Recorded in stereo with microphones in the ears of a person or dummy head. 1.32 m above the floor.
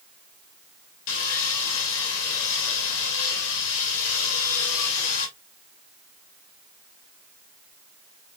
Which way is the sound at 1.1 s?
70° left (ahead or behind).